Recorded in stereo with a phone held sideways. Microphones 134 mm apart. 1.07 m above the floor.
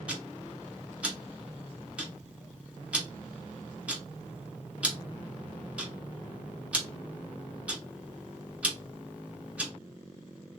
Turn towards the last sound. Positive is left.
turn(degrees=-10)  # may be behind; listen again after turning